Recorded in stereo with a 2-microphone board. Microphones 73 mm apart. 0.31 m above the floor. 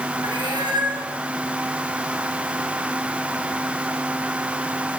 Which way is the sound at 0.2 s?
85° right.